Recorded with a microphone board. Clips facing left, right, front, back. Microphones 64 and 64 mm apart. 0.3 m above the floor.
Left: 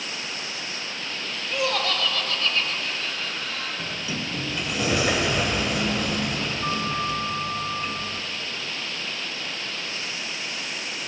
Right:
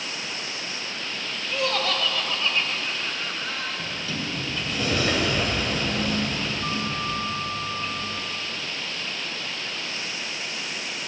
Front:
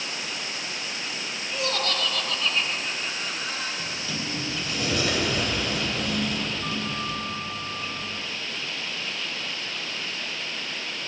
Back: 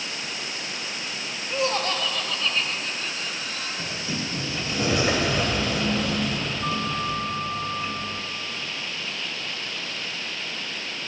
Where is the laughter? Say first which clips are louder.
Even, back 3 dB; 170° left, 1.1 m; by 3.7 s 40° right, 1.4 m.